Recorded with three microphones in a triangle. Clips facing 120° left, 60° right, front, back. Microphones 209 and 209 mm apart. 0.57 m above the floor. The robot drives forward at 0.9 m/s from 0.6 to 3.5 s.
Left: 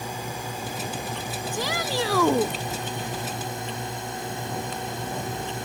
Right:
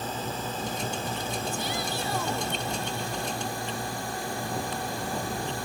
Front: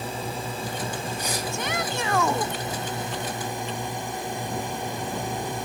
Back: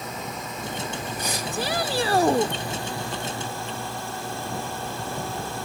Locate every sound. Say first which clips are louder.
0.0 s a drone: right 1 dB, front 3 dB; 45° left; by 5.7 s 65° left
1.5 s a shout: left 4 dB, back 3 dB; 120° left; by 2.5 s 125° left